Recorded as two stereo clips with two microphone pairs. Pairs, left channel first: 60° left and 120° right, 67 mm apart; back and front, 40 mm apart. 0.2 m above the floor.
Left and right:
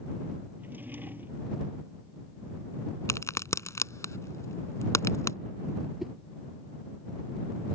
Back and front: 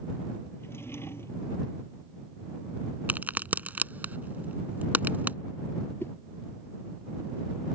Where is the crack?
35° left.